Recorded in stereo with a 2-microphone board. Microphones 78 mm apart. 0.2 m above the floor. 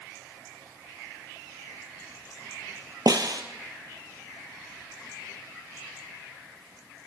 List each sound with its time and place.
3.1 s a snare drum: 60° right (ahead or behind), 1.3 m